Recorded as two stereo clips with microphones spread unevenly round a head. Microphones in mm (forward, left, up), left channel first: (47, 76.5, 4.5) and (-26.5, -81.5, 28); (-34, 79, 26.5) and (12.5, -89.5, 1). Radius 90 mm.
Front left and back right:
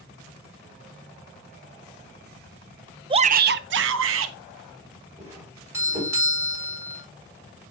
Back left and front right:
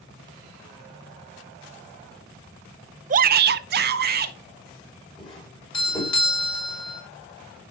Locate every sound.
3.1 s a shout: 50° right, 0.6 m; by 4.4 s 105° right, 1.7 m
5.2 s a doorbell: 170° left, 4.5 m